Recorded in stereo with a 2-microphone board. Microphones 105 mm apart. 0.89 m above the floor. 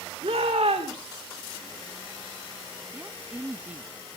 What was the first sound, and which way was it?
A shout, 70° right (ahead or behind).